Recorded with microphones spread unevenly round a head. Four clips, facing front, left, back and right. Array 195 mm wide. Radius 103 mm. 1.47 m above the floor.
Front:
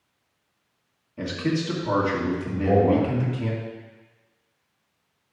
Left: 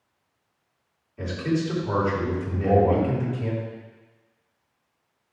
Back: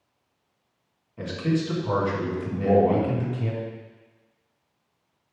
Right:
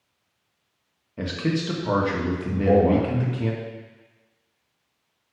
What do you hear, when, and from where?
1.2 s a man speaking: 75° right, 1.9 m
2.5 s a man speaking: 115° right, 1.5 m